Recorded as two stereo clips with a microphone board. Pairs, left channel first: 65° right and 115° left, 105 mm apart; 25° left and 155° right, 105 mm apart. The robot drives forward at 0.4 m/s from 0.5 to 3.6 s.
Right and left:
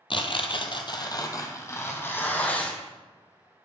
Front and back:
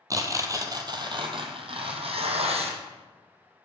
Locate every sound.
0.1 s tearing paper: 100° right, 0.8 m; by 2.8 s 145° right, 1.3 m